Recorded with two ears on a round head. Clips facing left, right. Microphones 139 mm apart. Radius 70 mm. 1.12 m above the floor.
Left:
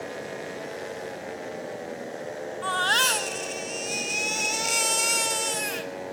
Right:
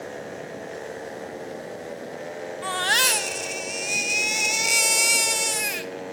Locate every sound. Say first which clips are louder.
2.6 s a baby crying: even; 15° right (ahead or behind), 1.6 m